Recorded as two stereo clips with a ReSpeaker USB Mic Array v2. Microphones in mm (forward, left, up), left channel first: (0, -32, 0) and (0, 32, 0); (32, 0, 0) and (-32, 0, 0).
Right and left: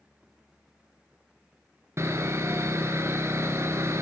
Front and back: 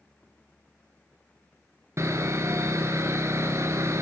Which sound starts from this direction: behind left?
Sawing, at 2.0 s.